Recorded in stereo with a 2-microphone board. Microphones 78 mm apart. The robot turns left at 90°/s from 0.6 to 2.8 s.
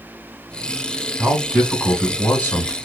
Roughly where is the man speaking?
Behind right.